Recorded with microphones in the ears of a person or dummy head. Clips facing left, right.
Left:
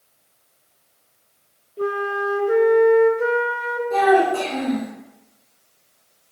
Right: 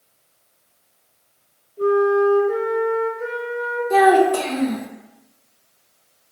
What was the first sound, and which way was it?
A flute, 65° left (ahead or behind).